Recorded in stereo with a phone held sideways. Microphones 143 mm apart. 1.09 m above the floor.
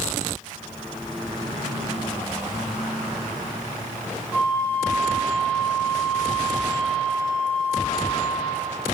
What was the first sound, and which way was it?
A flute, 5° left (ahead or behind).